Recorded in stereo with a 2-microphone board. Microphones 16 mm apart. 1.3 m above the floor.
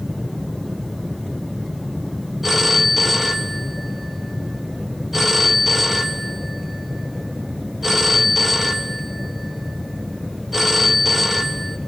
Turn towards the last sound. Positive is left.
turn(degrees=-10)  # may be behind; listen again after turning